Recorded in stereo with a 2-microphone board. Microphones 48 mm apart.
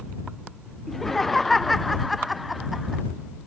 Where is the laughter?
5° left (ahead or behind); by 3.0 s 5° right (ahead or behind).